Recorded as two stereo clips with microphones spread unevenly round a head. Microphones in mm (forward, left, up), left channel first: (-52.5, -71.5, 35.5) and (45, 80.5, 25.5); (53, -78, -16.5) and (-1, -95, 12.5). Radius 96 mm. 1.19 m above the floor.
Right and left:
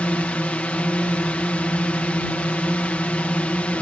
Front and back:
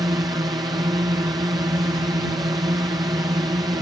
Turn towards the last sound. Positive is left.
turn(degrees=155)